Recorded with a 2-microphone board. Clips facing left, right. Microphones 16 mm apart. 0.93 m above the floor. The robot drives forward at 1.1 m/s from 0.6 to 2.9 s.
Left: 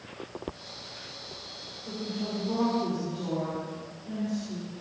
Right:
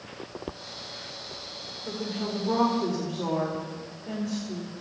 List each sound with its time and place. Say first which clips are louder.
1.9 s a woman speaking: right 2 dB; 65° right (ahead or behind), 3.5 m; by 4.7 s 80° right, 3.5 m